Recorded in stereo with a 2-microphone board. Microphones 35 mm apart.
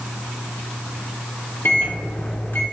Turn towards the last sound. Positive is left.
turn(degrees=65)  # may be behind; listen again after turning